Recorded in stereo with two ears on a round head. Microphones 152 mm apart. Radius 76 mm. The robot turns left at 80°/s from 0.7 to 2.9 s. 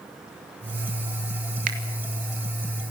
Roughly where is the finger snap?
Right.